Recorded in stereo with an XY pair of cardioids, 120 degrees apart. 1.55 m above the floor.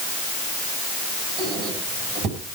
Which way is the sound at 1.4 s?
65° right.